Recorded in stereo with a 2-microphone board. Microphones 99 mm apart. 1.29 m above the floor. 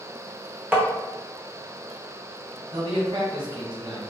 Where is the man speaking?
70° right (ahead or behind), 1.4 m.